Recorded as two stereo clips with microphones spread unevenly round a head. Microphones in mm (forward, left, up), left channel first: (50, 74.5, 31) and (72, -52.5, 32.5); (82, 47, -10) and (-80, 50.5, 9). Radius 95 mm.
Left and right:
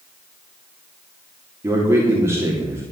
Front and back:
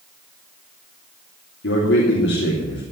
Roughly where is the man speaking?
Ahead.